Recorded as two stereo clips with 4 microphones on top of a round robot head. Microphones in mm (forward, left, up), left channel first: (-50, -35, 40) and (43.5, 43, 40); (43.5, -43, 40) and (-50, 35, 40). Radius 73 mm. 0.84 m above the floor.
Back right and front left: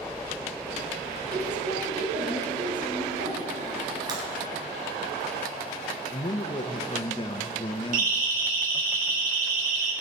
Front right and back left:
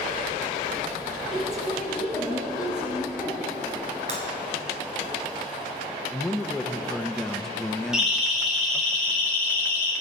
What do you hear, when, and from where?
1.3 s a woman speaking: 50° left, 6 m; by 3.7 s 60° left, 8.5 m
4.1 s breaking glass: 100° left, 3.5 m
6.1 s a man speaking: 125° right, 0.8 m
7.9 s a siren: 55° left, 6 m; by 9.9 s 30° left, 5 m